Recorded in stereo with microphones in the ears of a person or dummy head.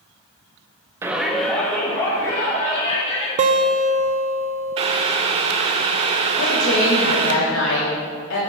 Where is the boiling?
30° right (ahead or behind), 0.5 m.